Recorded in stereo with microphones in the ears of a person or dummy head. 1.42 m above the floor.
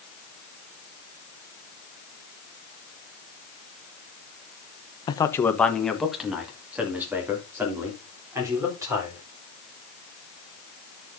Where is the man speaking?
20° left (ahead or behind), 0.9 m; by 9.2 s 25° right (ahead or behind), 4.5 m.